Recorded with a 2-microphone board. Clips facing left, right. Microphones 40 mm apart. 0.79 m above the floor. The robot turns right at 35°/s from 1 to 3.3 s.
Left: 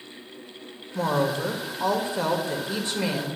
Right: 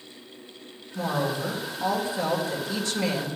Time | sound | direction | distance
0.9 | a woman speaking | 85° left | 2.5 m